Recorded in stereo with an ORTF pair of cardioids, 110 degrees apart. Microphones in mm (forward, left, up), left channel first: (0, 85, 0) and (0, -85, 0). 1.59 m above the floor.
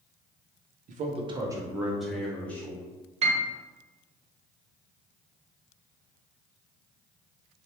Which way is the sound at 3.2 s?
40° right.